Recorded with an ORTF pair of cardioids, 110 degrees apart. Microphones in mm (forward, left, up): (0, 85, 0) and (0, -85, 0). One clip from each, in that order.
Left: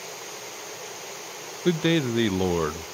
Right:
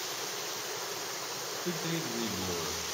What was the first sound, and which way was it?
A man speaking, 70° left.